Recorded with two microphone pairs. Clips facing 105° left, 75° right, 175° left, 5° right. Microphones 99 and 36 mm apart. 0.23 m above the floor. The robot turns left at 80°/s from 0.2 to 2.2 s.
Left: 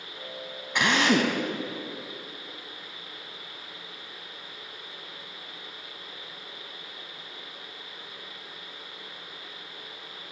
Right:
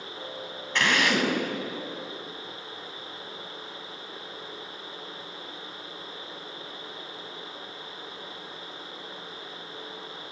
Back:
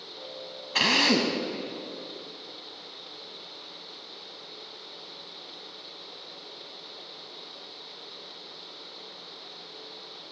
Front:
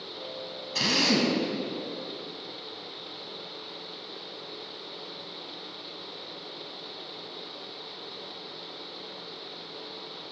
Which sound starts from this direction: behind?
A drill, at 0.8 s.